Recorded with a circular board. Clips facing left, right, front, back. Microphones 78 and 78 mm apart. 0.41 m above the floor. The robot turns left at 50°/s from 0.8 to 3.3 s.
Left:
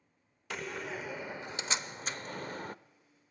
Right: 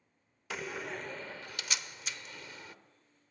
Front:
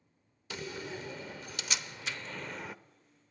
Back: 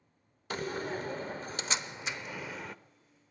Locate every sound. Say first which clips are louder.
0.5 s a door slam: even, back 6 dB; 175° right, 0.7 m; by 2.8 s 85° left, 0.7 m